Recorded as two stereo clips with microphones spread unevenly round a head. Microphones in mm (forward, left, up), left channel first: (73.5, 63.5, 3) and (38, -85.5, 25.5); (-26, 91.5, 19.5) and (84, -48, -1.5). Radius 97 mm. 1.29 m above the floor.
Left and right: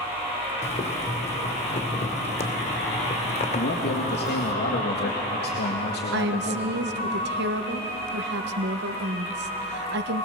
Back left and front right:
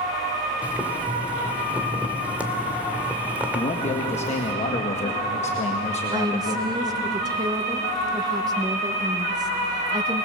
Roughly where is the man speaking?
Left.